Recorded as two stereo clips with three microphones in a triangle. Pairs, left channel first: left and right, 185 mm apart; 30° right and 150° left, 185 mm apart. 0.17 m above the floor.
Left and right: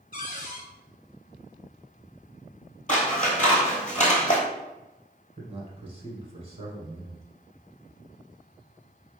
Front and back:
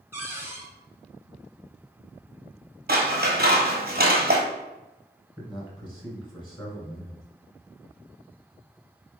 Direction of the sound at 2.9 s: 130° left.